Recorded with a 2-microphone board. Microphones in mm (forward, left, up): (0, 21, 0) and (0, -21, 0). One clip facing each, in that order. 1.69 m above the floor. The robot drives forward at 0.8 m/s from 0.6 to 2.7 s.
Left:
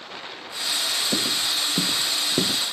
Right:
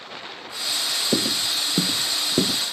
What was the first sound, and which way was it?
Footsteps, 35° right (ahead or behind).